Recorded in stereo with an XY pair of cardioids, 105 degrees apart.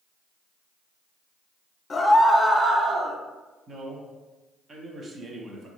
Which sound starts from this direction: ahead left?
A scream, at 1.9 s.